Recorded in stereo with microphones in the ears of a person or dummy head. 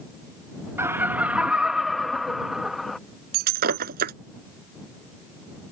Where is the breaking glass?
45° right (ahead or behind).